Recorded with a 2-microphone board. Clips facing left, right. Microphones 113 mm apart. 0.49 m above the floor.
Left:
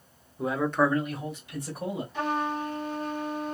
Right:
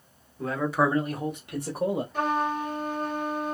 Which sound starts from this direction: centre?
A man speaking, at 0.4 s.